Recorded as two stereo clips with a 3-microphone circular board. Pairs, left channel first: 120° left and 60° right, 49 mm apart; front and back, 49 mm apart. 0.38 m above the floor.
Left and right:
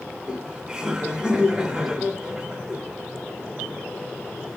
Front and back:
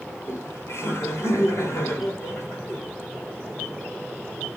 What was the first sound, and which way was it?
Laughter, 20° left.